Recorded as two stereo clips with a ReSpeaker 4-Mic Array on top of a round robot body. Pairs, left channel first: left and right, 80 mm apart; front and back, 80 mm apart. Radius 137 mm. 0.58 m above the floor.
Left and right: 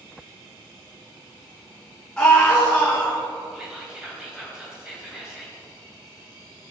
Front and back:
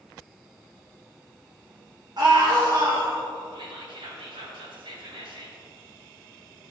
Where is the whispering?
170° right, 3.5 m.